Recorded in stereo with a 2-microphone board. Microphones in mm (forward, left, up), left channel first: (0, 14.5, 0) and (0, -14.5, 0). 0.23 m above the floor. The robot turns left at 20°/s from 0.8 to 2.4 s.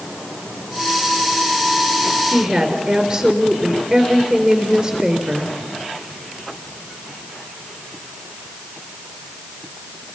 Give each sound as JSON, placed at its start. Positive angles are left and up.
{"t": 2.3, "sound": "a woman speaking", "side_deg": -30, "distance_m": 4.0}